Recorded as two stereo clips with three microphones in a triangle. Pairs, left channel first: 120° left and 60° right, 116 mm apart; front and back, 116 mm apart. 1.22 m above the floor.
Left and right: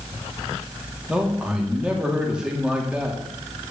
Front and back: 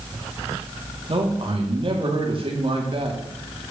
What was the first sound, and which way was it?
A man speaking, 145° right.